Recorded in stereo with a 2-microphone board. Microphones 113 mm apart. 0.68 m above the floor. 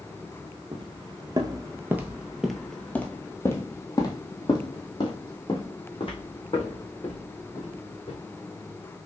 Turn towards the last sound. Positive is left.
turn(degrees=55)  # may be behind; listen again after turning